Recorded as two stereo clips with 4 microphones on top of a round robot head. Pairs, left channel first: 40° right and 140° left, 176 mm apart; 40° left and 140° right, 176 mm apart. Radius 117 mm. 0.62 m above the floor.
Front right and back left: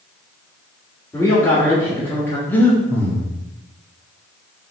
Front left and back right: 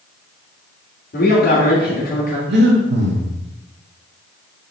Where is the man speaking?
35° left, 1.8 m.